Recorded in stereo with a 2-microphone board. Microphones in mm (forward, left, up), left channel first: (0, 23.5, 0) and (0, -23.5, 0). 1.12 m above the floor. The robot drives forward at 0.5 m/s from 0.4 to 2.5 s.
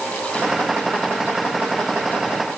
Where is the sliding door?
No sliding door in this recording.